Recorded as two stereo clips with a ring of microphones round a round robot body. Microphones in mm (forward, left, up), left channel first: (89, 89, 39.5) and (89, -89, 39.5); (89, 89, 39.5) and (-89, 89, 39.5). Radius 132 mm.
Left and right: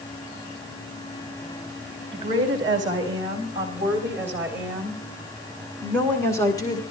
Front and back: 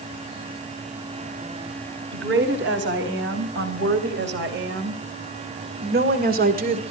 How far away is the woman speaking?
About 4 m.